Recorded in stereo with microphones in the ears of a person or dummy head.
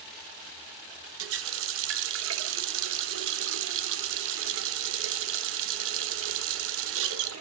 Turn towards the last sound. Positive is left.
turn(degrees=-75)  # may be behind; listen again after turning